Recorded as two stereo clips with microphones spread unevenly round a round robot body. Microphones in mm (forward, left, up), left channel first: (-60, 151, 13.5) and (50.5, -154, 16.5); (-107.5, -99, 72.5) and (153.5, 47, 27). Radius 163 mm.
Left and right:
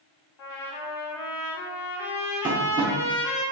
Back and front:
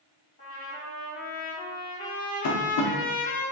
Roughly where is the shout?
I don't hear a shout.